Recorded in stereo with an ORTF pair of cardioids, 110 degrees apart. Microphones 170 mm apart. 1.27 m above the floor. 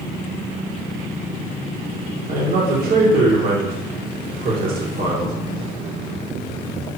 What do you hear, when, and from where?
2.3 s a man speaking: 55° right, 1.6 m